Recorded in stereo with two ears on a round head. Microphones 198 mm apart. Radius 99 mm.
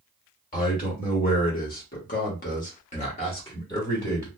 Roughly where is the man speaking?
Left.